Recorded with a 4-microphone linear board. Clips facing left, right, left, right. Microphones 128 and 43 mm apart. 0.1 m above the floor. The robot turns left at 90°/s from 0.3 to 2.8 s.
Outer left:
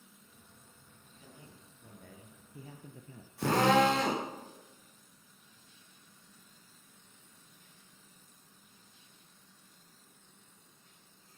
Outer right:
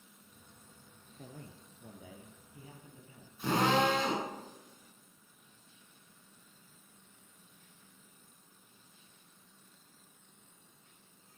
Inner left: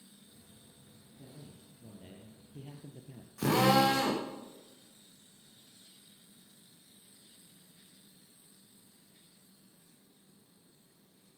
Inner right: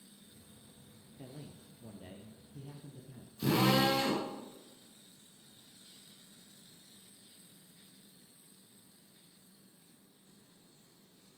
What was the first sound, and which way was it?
A man speaking, 95° right.